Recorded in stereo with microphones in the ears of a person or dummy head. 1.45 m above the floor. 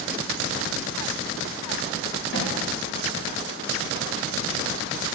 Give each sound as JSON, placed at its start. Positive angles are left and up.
{"t": 2.3, "sound": "a snare drum", "side_deg": 65, "distance_m": 1.5}